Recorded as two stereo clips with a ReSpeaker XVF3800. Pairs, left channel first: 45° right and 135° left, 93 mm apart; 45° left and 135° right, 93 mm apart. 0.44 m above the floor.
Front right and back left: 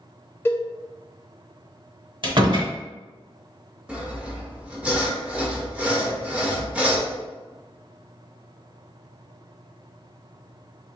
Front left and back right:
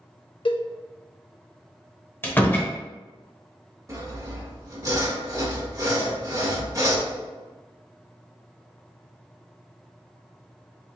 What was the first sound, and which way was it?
A cowbell, 20° left.